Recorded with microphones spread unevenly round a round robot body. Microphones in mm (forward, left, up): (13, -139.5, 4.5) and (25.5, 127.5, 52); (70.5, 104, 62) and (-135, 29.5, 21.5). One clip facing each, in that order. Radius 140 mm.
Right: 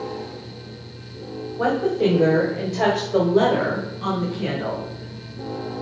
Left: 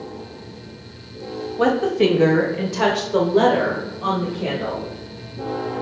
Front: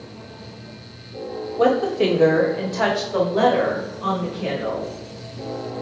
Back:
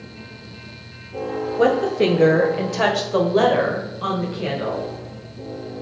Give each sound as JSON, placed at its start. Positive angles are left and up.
{"t": 1.6, "sound": "a woman speaking", "azimuth_deg": 125, "distance_m": 2.5}